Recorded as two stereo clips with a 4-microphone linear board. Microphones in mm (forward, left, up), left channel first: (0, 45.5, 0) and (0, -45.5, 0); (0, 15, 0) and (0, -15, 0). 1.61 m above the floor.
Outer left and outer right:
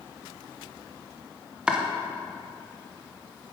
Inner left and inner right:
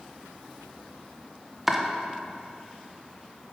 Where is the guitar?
No guitar in this recording.